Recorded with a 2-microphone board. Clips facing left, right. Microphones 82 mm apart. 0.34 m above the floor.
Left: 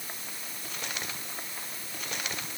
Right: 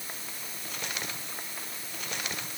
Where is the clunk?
I don't hear a clunk.